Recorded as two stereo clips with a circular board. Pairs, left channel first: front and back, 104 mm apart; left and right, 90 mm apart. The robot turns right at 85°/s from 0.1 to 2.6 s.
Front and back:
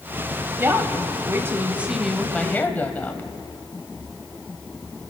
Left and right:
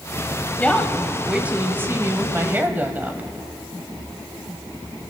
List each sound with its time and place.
0.6 s a woman speaking: 140° left, 1.0 m; by 3.3 s 50° right, 1.0 m